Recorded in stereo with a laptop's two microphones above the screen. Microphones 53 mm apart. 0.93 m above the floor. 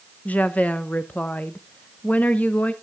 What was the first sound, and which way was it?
A woman speaking, 30° left (ahead or behind).